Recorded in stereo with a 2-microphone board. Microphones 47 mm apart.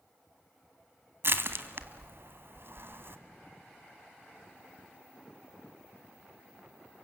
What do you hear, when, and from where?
1.2 s crushing: 55° right (ahead or behind), 1.3 m